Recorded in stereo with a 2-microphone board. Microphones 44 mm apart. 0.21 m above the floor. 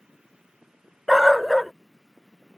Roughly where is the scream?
No scream in this recording.